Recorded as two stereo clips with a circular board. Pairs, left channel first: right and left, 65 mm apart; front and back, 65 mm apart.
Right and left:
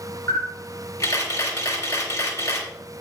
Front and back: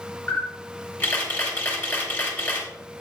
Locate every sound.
0.3 s a camera shutter: 60° right, 3.5 m